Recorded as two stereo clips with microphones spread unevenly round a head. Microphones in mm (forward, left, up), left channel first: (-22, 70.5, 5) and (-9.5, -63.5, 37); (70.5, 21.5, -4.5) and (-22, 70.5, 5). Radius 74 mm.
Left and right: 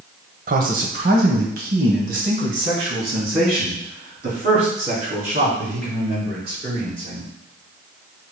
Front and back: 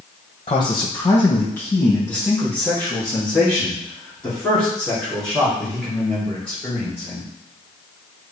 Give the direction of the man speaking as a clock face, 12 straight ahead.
3 o'clock.